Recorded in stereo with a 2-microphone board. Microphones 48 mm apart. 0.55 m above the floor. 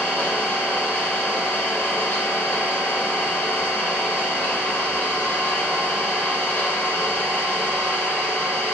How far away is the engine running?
About 0.8 m.